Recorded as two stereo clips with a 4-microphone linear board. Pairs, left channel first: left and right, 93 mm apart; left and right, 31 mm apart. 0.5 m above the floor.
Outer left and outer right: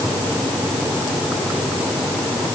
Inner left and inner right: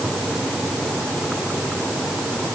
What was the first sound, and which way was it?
Only background noise.